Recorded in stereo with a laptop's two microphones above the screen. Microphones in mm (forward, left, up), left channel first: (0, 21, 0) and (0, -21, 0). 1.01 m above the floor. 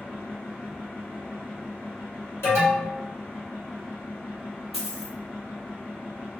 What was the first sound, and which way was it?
A fan, 65° left (ahead or behind).